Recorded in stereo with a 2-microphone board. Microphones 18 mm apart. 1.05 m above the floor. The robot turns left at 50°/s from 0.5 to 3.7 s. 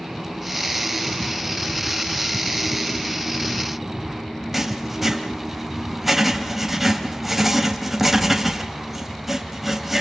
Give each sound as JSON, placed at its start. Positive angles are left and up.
{"t": 4.5, "sound": "writing", "side_deg": -15, "distance_m": 3.0}